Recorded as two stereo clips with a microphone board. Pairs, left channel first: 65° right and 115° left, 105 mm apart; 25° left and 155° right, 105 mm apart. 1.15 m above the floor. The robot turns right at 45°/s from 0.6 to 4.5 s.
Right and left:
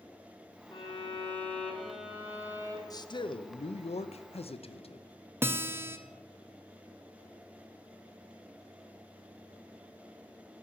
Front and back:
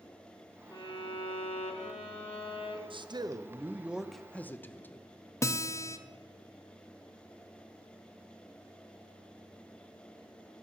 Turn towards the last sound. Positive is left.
turn(degrees=60)